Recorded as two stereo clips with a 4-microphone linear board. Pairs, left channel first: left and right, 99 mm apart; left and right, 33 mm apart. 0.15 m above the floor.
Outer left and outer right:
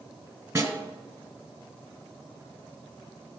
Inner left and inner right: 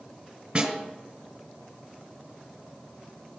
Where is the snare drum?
25° right (ahead or behind), 2.5 m.